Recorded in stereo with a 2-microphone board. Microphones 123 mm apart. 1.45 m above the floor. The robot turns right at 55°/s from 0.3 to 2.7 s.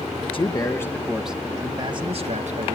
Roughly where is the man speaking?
Behind left.